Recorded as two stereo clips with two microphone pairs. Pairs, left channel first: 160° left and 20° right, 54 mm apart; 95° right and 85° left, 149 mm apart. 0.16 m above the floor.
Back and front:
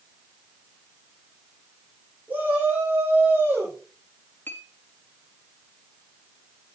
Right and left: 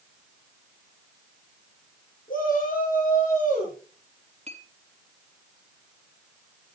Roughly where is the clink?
Behind left.